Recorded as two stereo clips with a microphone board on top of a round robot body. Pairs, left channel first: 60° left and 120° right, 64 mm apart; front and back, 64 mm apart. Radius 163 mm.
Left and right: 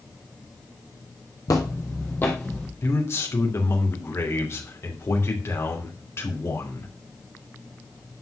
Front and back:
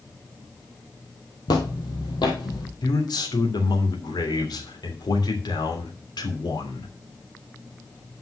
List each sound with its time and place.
1.5 s footsteps: 20° left, 1.3 m; by 2.7 s 15° right, 1.5 m
2.8 s a man speaking: 10° left, 3 m